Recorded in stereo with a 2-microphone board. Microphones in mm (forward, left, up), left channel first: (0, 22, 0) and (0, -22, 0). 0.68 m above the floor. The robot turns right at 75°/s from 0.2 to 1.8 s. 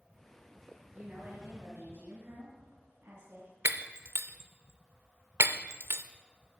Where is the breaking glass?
65° right (ahead or behind), 0.6 m.